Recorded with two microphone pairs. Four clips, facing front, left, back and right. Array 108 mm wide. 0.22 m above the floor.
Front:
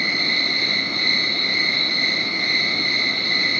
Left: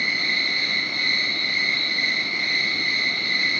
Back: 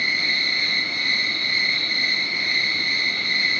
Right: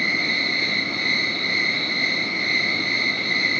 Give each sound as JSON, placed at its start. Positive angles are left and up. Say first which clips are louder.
{"t": 0.0, "sound": "an insect", "louder": "right 2 dB, front 1 dB", "azimuth_deg": 180, "distance_m": 1.2}